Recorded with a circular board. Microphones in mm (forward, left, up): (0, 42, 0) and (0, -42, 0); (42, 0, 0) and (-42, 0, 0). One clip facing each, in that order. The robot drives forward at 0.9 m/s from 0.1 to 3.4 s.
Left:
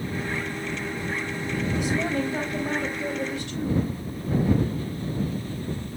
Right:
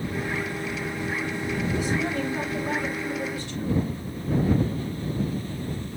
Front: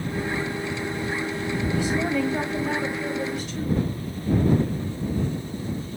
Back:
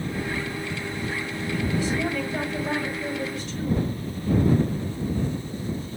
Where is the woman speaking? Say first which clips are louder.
Left 3 dB, front 3 dB; 70° left, 5.5 m; by 3.9 s 85° left, 5 m.